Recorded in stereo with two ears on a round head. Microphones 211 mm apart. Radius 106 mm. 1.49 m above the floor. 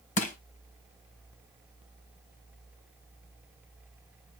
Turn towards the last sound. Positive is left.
turn(degrees=35)  # may be behind; listen again after turning